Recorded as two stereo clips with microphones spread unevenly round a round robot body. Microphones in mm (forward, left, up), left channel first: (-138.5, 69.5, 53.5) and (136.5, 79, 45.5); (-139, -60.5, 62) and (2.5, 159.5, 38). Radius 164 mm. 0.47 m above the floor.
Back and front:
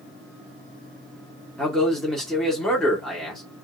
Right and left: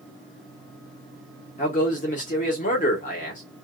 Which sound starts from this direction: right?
A man speaking, at 1.6 s.